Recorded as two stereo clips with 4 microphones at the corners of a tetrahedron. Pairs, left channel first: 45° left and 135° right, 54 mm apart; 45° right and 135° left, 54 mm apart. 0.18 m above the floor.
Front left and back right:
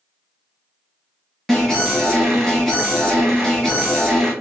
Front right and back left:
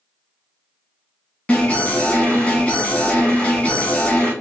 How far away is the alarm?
About 1.1 m.